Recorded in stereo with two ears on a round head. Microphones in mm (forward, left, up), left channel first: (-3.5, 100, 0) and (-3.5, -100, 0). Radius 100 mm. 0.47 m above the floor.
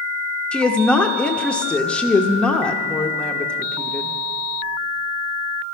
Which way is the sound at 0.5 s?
5° left (ahead or behind).